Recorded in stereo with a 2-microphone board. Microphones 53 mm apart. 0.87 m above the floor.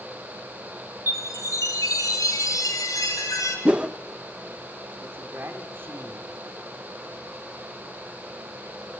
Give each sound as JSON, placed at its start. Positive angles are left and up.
{"t": 1.1, "sound": "a chime", "side_deg": 80, "distance_m": 5.0}
{"t": 3.6, "sound": "a whoosh", "side_deg": -20, "distance_m": 0.8}
{"t": 5.0, "sound": "a man speaking", "side_deg": -40, "distance_m": 3.0}